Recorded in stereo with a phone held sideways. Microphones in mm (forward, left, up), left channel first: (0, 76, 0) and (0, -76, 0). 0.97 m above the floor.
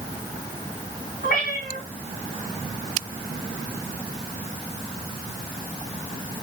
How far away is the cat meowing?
About 2.5 m.